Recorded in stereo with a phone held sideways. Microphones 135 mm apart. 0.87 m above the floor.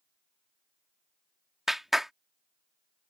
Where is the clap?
Centre (ahead or behind).